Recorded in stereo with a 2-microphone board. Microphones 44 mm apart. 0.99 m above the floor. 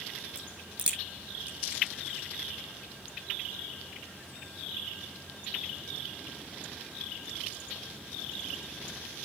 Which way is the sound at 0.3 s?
25° right (ahead or behind).